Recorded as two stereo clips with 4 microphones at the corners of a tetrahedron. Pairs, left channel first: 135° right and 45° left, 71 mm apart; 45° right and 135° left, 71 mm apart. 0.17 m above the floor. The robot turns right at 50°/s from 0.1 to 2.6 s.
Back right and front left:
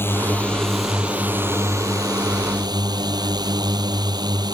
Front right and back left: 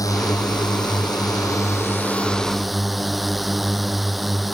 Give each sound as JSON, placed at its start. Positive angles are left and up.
{"t": 0.0, "sound": "a drone", "azimuth_deg": -75}